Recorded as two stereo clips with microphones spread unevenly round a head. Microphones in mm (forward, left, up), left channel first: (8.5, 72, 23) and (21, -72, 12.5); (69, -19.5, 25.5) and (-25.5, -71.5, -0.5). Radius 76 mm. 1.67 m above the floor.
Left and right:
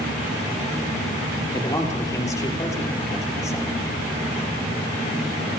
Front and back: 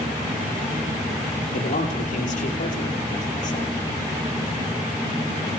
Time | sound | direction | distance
1.5 | a man speaking | 30° left | 5.5 m